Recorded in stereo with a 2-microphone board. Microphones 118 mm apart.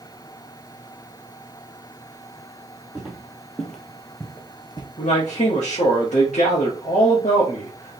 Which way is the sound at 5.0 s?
75° left (ahead or behind).